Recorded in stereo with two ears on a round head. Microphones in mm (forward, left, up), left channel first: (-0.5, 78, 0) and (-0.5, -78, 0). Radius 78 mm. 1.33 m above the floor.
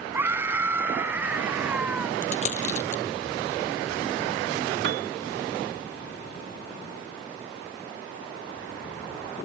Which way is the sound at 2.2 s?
40° left (ahead or behind).